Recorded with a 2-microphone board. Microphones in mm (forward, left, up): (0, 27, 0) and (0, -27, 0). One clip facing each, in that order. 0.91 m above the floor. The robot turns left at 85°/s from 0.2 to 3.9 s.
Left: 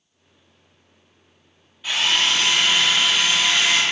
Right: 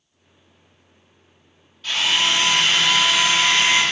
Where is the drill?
15° left, 1.6 m; by 3.8 s 155° right, 1.6 m.